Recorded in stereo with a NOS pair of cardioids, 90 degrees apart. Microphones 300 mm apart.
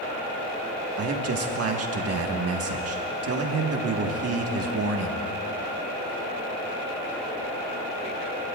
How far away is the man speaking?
About 1.6 m.